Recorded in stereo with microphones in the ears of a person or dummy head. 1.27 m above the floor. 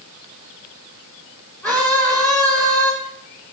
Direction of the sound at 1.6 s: 10° left (ahead or behind).